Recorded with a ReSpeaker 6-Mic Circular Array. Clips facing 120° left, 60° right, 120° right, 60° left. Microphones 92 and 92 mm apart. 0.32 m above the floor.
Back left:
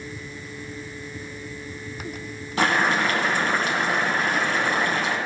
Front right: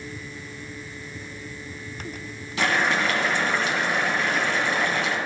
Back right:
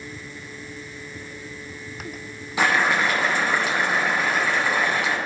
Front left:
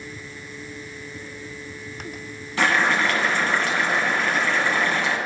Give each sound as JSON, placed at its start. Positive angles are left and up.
{"t": 2.6, "sound": "boiling", "azimuth_deg": 165, "distance_m": 1.3}